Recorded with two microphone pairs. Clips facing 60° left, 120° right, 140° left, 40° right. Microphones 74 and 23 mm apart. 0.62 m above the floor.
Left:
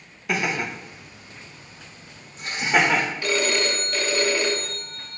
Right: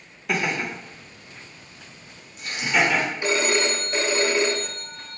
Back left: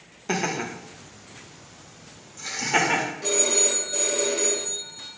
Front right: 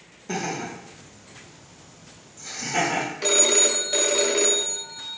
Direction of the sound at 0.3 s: 150° left.